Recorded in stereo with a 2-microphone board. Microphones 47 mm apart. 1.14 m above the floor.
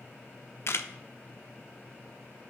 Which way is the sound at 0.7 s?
65° left (ahead or behind).